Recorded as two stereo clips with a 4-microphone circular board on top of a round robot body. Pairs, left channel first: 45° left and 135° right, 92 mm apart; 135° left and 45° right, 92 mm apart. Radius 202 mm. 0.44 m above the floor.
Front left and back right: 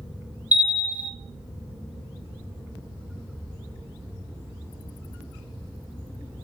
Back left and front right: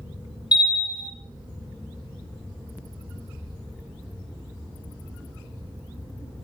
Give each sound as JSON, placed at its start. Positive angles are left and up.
{"t": 0.5, "sound": "a bell", "azimuth_deg": 155, "distance_m": 1.0}